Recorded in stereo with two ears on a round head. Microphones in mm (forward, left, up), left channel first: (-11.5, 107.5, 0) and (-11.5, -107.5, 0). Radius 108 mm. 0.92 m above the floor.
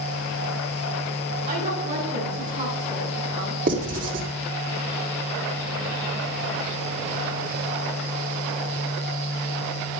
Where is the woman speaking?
30° right (ahead or behind), 7 m; by 3.6 s 20° right (ahead or behind), 9 m.